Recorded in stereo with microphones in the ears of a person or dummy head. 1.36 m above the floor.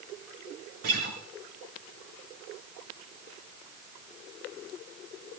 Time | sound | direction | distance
0.8 | a guitar | 50° right (ahead or behind) | 4 m